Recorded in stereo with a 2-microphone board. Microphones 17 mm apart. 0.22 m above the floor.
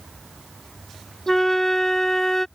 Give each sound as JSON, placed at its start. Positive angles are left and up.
{"t": 1.3, "sound": "a flute", "side_deg": 25}